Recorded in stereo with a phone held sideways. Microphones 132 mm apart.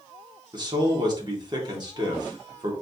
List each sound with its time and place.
0.5 s a man speaking: 35° right (ahead or behind), 1.6 m